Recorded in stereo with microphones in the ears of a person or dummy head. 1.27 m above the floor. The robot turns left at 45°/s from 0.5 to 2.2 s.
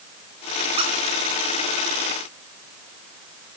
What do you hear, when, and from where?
0.8 s a squeak: 30° right (ahead or behind), 2.5 m; by 0.9 s 25° right (ahead or behind), 2.5 m